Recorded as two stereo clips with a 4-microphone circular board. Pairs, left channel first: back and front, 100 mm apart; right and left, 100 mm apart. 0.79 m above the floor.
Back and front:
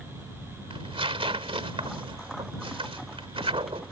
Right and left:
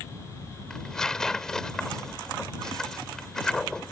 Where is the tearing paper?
5° right.